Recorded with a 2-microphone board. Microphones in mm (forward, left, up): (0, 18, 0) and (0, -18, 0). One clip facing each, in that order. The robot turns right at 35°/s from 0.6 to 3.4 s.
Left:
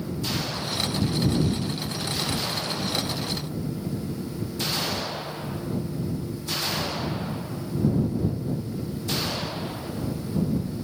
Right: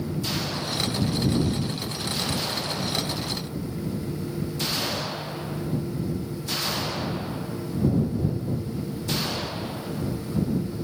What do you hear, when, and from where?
Only background noise.